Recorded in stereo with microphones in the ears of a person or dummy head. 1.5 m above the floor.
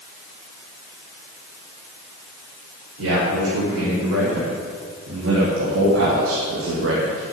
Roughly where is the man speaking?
Right.